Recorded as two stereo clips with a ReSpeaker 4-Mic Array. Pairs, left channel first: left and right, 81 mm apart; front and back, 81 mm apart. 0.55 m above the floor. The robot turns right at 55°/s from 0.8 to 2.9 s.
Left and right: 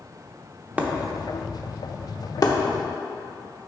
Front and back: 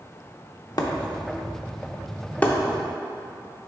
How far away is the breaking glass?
About 0.7 m.